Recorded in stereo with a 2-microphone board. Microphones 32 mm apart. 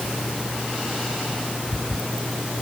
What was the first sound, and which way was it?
Only background noise.